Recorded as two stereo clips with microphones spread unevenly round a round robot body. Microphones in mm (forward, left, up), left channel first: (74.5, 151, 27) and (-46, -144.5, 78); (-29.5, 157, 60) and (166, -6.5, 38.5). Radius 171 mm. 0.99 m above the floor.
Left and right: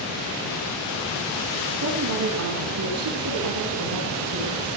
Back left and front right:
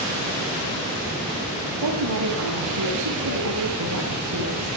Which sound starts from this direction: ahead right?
A woman speaking, at 1.8 s.